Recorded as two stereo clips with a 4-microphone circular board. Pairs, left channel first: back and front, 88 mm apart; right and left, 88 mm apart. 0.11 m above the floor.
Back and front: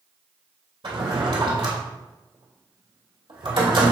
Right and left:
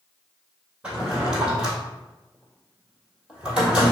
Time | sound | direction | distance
0.8 | a drawer | 10° left | 1.7 m